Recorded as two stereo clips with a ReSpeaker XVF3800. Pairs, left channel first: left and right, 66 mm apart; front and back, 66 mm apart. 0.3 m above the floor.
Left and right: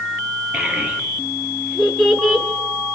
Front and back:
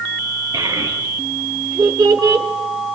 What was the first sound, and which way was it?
A child speaking, 165° right.